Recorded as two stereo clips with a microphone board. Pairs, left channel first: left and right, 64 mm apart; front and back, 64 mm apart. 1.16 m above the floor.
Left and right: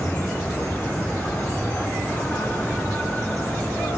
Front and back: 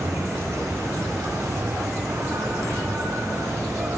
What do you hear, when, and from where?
0.0 s an insect: 145° left, 3.5 m